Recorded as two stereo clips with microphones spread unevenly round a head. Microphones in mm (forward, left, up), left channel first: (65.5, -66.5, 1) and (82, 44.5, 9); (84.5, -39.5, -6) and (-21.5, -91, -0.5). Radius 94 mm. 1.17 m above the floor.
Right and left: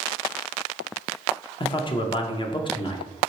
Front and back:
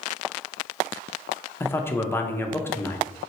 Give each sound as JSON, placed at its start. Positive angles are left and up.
{"t": 1.6, "sound": "a man speaking", "azimuth_deg": -45, "distance_m": 0.6}